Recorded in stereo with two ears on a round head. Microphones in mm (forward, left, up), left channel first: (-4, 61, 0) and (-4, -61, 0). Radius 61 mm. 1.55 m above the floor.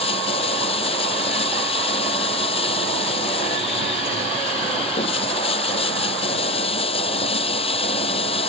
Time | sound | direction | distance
0.0 | running water | 40° left (ahead or behind) | ?